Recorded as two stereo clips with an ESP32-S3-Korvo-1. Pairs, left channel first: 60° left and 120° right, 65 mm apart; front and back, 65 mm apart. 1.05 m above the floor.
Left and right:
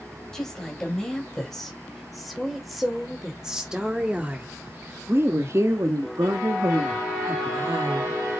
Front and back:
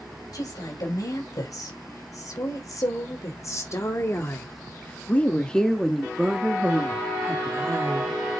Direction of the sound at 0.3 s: 20° right.